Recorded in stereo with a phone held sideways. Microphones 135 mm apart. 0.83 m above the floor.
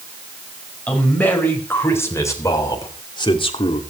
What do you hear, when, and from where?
0.9 s a man speaking: 10° left (ahead or behind), 5 m; by 3.8 s 45° left (ahead or behind), 2.5 m